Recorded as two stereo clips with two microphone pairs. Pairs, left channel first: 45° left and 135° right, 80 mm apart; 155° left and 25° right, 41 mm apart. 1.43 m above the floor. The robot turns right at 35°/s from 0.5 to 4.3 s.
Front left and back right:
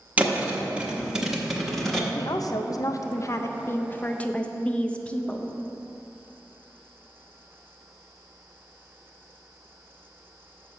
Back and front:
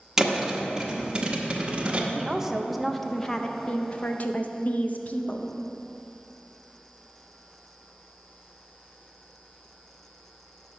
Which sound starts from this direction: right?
A thud, at 0.2 s.